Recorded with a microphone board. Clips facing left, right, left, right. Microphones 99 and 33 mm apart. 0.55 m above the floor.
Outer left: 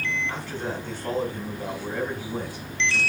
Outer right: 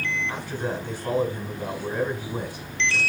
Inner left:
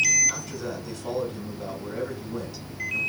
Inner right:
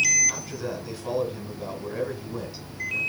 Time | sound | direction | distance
0.3 | a man speaking | 15° right (ahead or behind) | 4 m